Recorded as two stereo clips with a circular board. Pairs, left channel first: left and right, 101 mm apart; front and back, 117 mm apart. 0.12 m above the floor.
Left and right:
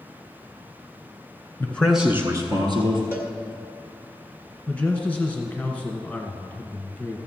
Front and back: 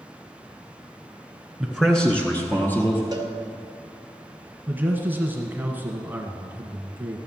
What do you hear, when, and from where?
1.6 s a man speaking: 95° left, 1.1 m; by 3.0 s 70° right, 1.9 m
3.1 s a cowbell: 150° right, 1.5 m
4.7 s a man speaking: 140° left, 1.2 m